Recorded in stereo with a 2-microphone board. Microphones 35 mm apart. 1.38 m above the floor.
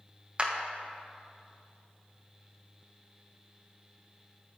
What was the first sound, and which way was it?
A clap, 35° right (ahead or behind).